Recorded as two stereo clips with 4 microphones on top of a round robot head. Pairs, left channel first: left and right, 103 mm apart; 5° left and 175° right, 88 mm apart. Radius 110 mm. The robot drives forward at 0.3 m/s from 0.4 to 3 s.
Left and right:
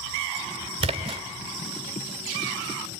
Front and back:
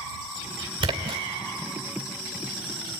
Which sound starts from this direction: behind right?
A splash, at 0.8 s.